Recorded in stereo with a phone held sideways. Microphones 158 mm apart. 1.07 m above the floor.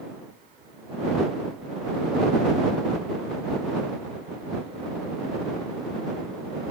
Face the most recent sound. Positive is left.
No sound to turn to.